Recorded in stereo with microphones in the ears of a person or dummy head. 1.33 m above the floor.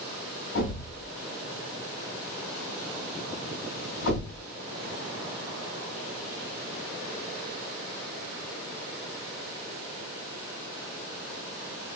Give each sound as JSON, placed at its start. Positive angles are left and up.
{"t": 0.6, "sound": "a thud", "side_deg": 65, "distance_m": 3.0}